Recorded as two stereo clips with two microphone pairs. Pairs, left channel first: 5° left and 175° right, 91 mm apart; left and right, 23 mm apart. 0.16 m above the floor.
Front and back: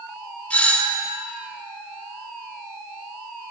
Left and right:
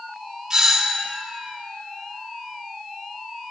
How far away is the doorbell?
About 2 m.